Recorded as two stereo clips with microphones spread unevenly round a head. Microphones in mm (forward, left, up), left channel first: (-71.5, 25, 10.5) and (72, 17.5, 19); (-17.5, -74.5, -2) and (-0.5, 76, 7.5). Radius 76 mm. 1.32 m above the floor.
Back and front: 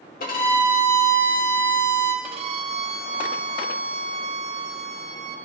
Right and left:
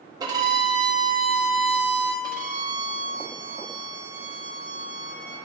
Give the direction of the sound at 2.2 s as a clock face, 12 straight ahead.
11 o'clock.